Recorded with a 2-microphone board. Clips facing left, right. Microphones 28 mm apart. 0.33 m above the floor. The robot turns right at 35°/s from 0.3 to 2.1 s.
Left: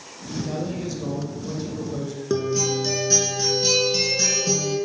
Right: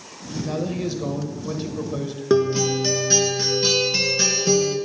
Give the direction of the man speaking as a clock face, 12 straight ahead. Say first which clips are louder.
Right 4 dB; 5 o'clock.